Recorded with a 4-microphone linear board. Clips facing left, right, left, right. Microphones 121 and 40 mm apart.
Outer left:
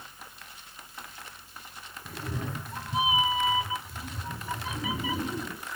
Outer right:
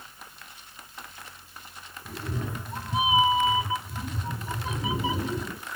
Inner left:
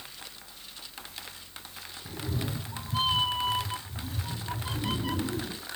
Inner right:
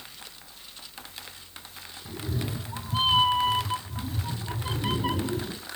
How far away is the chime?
I don't hear a chime.